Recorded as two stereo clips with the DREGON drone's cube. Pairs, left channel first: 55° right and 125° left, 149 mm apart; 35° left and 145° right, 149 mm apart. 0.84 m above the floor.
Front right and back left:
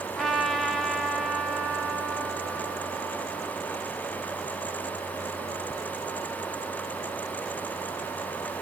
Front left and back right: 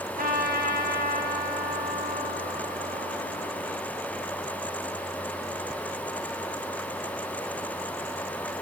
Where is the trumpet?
145° right, 1.0 m.